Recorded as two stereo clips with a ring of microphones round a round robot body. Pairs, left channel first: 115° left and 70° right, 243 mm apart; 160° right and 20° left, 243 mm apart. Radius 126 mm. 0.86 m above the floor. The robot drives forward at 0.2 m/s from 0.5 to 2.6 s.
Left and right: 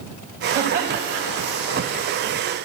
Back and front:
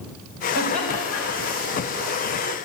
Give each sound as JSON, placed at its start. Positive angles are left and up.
{"t": 0.6, "sound": "laughter", "azimuth_deg": -145, "distance_m": 4.5}